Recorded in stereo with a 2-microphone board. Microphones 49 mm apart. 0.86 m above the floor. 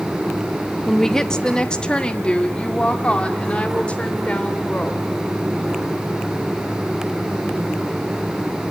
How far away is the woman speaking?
About 0.8 m.